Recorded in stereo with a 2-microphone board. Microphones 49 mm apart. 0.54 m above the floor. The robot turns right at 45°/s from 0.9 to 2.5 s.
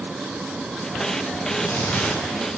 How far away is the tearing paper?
About 6.5 m.